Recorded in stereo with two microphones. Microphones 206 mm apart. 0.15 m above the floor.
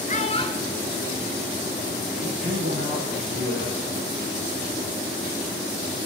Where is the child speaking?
40° left (ahead or behind), 1.6 m; by 2.0 s 55° right (ahead or behind), 1.8 m.